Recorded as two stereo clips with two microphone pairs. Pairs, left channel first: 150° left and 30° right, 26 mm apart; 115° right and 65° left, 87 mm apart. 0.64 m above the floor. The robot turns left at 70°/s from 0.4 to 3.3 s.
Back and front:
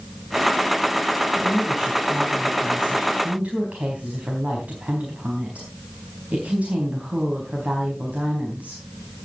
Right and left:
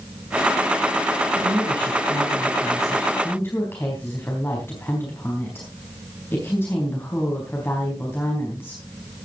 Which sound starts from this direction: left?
A woman speaking, at 1.4 s.